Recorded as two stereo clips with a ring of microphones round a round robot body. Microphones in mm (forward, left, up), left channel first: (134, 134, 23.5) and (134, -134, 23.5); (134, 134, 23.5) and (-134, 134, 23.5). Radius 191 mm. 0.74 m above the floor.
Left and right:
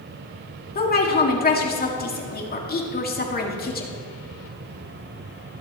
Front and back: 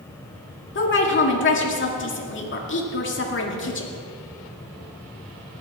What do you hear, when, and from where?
0.8 s a woman speaking: 40° left, 2.0 m